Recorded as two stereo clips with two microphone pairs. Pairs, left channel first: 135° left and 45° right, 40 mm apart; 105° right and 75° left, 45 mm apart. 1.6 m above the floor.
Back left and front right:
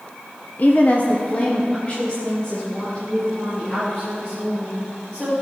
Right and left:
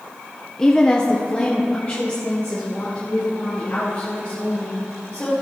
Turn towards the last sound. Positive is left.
turn(degrees=-160)